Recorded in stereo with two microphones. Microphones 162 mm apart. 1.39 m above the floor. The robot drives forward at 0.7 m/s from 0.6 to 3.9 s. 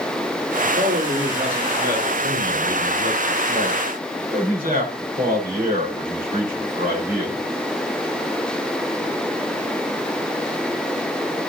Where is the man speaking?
85° right, 4 m; by 7.4 s 60° right (ahead or behind), 4.5 m.